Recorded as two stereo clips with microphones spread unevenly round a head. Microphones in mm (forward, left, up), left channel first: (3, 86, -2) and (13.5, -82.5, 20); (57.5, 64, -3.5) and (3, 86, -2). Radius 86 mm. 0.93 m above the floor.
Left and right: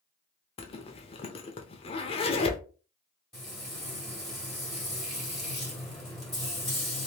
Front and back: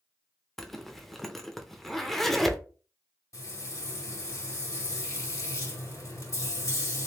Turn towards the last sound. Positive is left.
turn(degrees=5)